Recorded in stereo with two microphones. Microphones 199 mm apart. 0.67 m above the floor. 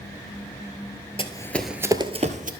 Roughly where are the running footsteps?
Left.